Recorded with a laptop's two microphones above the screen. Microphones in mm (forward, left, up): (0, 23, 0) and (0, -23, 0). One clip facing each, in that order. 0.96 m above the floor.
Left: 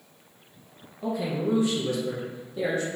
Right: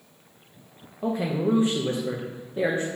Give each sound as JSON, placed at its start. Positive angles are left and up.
{"t": 1.0, "sound": "a man speaking", "side_deg": -30, "distance_m": 1.0}